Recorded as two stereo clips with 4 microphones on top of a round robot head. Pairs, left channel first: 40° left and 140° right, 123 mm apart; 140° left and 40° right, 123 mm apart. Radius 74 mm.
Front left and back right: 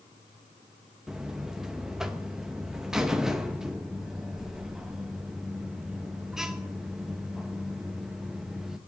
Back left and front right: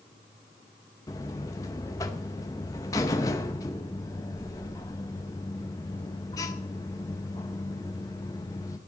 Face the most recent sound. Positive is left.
turn(degrees=140)